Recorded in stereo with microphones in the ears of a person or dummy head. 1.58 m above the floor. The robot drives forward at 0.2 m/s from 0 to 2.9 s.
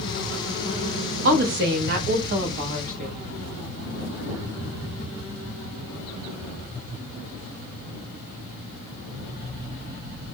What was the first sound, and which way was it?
A woman speaking, 65° right (ahead or behind).